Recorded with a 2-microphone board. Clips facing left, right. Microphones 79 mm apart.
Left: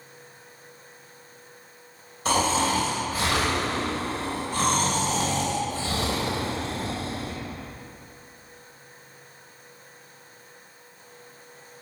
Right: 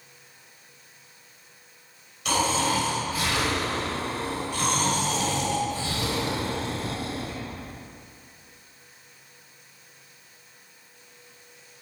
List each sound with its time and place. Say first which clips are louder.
2.2 s snoring: left 2 dB; 40° left (ahead or behind), 2.5 m